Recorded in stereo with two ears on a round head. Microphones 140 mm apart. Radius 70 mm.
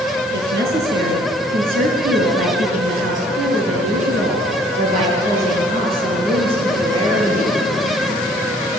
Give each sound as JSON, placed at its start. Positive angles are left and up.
{"t": 0.3, "sound": "a woman speaking", "side_deg": -70, "distance_m": 6.0}